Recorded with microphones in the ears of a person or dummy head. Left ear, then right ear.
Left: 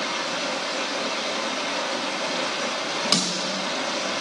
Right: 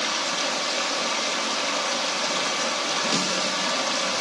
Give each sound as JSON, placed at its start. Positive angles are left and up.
{"t": 0.0, "sound": "running water", "side_deg": -40, "distance_m": 1.3}
{"t": 3.1, "sound": "a snare drum", "side_deg": 25, "distance_m": 2.5}